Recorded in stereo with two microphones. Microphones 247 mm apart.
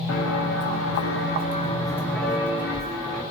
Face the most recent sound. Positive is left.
turn(degrees=-15)  # may be behind; listen again after turning